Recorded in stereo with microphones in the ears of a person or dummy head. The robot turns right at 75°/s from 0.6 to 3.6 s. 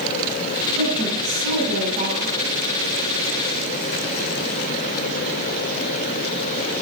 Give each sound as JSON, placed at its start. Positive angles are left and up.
{"t": 0.7, "sound": "a woman speaking", "azimuth_deg": -140, "distance_m": 5.5}